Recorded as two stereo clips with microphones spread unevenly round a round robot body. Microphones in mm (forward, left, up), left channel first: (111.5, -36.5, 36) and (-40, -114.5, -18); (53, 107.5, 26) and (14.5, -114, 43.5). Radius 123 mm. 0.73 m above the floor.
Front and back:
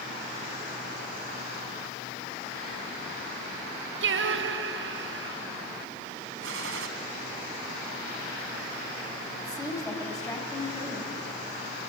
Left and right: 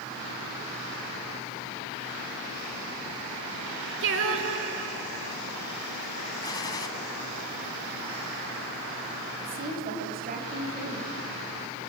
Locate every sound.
4.0 s singing: 145° right, 1.5 m
6.4 s a gunshot: 160° left, 1.2 m
9.4 s a woman speaking: 45° right, 4 m